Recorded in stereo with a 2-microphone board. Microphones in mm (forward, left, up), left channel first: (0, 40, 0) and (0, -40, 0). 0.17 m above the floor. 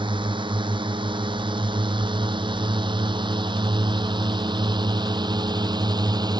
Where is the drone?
80° right; by 6.4 s 60° right (ahead or behind).